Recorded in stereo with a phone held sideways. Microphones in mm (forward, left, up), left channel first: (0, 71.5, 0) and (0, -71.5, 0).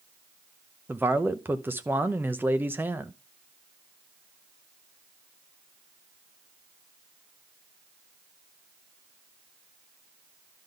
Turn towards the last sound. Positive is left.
turn(degrees=-15)  # may be behind; listen again after turning